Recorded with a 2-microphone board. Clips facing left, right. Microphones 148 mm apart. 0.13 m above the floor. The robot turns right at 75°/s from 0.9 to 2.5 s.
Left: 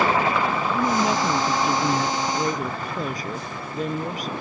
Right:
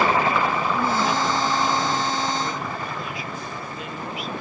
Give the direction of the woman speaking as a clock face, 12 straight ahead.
12 o'clock.